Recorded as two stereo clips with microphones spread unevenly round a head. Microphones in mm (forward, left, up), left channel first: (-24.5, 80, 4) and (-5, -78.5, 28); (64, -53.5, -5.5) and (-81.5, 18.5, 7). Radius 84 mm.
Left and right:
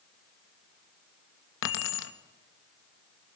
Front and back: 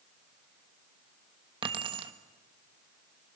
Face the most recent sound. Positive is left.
turn(degrees=90)